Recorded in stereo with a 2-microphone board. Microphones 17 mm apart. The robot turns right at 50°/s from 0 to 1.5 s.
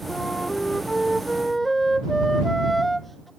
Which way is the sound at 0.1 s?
105° left.